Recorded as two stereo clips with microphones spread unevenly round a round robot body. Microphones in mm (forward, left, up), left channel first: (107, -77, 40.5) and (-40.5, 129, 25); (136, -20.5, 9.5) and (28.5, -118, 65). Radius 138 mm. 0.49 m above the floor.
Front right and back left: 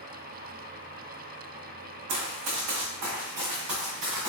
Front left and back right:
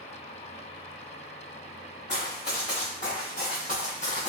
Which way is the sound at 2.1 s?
115° left.